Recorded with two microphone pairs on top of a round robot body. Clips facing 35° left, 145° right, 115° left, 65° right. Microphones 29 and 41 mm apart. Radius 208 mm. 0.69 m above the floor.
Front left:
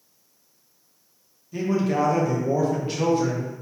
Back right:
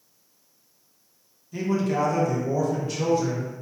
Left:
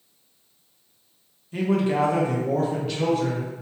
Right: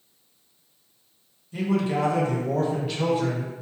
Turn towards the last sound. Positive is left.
turn(degrees=10)